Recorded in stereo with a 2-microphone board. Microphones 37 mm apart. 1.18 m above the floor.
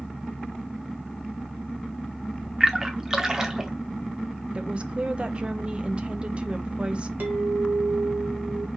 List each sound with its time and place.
2.6 s a splash: 20° right (ahead or behind), 0.8 m
4.5 s a woman speaking: 30° right (ahead or behind), 0.7 m
7.2 s a clink: 75° right (ahead or behind), 1.9 m